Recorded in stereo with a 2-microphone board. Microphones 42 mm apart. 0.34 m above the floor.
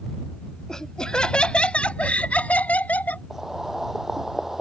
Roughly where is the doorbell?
No doorbell in this recording.